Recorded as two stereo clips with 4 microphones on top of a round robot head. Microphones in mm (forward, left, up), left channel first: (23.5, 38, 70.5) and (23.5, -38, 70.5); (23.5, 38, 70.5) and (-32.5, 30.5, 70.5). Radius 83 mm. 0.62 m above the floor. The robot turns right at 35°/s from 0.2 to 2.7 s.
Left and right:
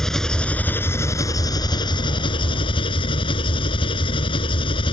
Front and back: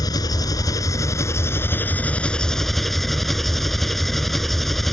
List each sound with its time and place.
0.0 s an engine running: 5° left; by 4.9 s 95° left